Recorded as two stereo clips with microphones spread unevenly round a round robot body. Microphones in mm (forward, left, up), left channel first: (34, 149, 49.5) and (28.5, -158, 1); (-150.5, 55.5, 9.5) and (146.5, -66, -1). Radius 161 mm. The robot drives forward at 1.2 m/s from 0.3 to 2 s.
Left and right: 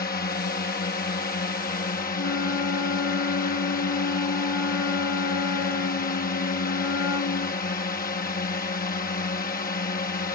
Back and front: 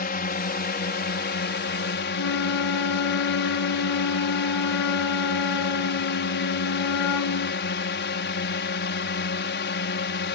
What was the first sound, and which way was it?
A drone, 135° left.